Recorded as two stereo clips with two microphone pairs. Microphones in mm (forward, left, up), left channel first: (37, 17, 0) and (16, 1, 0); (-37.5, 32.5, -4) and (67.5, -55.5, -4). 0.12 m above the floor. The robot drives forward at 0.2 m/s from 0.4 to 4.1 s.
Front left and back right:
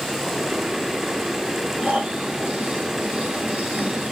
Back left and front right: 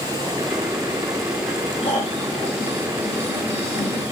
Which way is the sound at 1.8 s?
175° right.